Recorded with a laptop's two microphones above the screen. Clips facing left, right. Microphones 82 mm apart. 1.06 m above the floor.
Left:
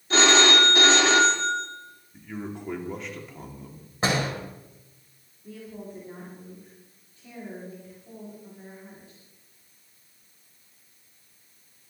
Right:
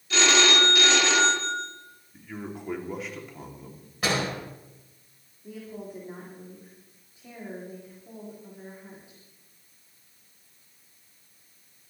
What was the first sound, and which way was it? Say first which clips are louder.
A phone ringing: left 3 dB; 40° left (ahead or behind).